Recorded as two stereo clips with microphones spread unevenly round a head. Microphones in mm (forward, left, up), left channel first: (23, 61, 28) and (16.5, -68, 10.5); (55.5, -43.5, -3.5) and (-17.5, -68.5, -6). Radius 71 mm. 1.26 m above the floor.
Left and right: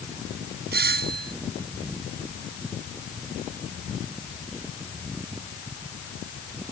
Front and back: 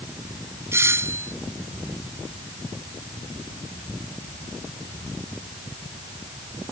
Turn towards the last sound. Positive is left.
turn(degrees=-105)